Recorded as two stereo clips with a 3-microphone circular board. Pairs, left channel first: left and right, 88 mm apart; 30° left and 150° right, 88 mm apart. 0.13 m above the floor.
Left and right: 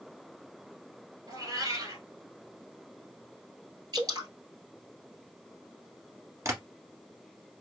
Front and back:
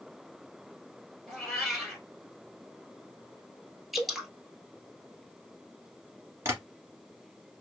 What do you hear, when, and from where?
1.3 s a cat meowing: 55° right, 1.5 m
3.9 s dripping: 60° right, 0.9 m
6.5 s tapping: 110° right, 1.5 m